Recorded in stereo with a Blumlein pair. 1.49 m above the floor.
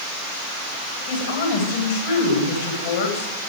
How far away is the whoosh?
No whoosh in this recording.